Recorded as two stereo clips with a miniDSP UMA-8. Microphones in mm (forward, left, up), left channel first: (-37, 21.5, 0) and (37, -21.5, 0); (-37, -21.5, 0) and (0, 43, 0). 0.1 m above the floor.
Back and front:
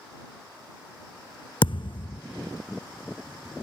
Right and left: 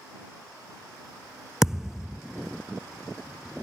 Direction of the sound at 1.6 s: 145° left.